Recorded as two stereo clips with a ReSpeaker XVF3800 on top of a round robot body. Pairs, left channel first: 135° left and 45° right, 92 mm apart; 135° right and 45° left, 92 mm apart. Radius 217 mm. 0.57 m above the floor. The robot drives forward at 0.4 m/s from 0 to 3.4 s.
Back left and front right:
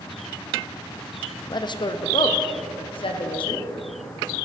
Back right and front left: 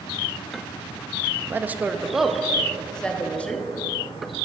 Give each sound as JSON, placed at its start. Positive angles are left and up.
{"t": 1.5, "sound": "a woman speaking", "azimuth_deg": 110, "distance_m": 0.8}